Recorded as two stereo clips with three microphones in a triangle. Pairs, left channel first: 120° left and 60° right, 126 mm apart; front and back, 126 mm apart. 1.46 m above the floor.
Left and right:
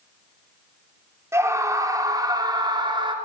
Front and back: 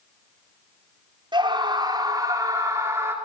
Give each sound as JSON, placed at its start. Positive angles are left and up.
{"t": 1.3, "sound": "a scream", "azimuth_deg": -130, "distance_m": 4.5}